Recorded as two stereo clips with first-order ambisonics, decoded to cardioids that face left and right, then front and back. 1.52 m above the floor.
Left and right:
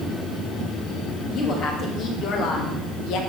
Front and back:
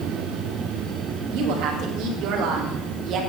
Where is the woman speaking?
150° left, 3 m; by 3.2 s 125° left, 2.5 m.